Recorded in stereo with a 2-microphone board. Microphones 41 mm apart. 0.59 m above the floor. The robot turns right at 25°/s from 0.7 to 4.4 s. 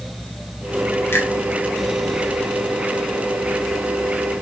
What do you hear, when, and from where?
1.1 s a finger snap: 70° left (ahead or behind), 3.5 m; by 1.3 s 65° left (ahead or behind), 3.5 m